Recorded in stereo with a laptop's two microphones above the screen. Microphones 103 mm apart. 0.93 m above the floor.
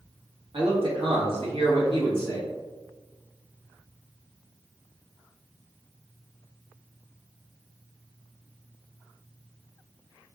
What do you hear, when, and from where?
0.5 s a man speaking: 60° right (ahead or behind), 1.2 m; by 2.5 s 50° right (ahead or behind), 1.8 m